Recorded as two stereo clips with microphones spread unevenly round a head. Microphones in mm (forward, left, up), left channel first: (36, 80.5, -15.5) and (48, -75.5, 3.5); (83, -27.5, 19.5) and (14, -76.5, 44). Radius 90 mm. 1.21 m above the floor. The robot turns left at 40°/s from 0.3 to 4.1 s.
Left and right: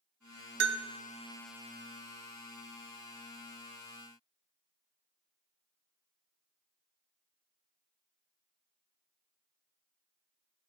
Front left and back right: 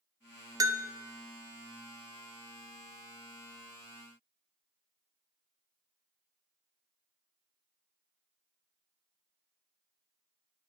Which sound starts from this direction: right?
A bell, at 0.6 s.